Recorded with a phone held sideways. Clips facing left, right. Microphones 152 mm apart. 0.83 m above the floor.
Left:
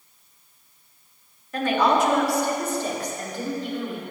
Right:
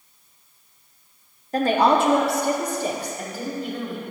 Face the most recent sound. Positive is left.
turn(degrees=0)  # may be behind; listen again after turning